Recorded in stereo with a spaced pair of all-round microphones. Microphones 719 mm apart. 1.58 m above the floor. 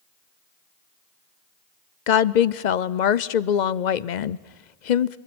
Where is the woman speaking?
80° left, 0.8 m.